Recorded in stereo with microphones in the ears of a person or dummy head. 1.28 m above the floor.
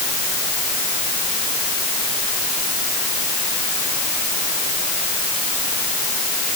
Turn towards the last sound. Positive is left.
No sound to turn to.